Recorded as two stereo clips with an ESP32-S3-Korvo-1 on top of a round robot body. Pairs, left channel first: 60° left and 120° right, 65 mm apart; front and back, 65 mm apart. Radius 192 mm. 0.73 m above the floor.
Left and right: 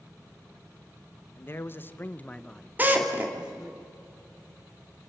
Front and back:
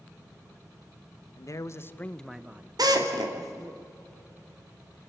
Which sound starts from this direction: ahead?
A man speaking, at 1.4 s.